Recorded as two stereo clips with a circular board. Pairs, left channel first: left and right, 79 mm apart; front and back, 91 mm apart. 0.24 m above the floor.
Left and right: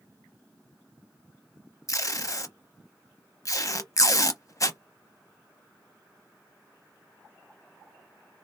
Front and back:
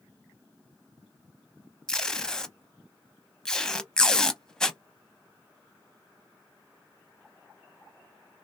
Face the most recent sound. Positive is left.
turn(degrees=80)